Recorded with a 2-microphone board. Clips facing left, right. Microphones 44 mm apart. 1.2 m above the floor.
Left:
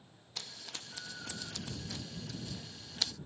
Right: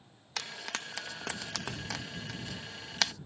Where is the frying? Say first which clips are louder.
Right 9 dB; 75° right (ahead or behind).